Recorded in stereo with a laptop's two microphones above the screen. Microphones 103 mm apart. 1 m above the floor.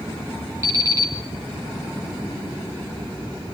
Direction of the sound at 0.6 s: 30° right (ahead or behind).